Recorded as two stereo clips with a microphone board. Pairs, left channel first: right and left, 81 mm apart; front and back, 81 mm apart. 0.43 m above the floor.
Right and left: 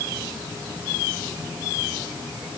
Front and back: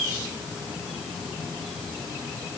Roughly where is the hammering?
No hammering in this recording.